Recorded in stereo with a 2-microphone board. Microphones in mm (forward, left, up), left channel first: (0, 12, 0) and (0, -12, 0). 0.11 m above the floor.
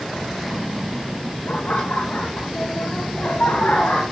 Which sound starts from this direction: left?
Laughter, at 1.5 s.